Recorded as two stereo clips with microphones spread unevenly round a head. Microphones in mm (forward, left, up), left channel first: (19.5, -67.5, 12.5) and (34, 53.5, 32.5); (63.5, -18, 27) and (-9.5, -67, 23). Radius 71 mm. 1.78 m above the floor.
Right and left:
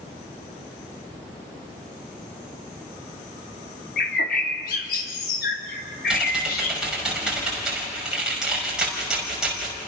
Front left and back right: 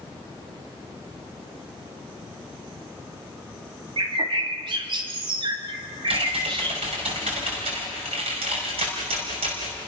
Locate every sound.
4.0 s a bird: 120° right, 3 m
6.1 s typing on a keyboard: 165° left, 5 m